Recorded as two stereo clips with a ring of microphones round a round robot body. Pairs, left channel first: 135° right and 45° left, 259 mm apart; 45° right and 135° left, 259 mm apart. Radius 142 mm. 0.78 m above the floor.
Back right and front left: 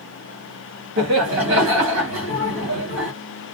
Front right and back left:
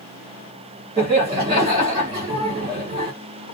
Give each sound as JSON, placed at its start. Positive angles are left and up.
{"t": 1.0, "sound": "laughter", "azimuth_deg": 70, "distance_m": 1.7}